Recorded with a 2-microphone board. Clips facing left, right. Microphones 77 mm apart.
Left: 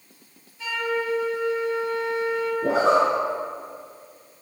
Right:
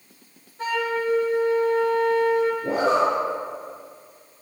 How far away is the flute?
About 2.5 m.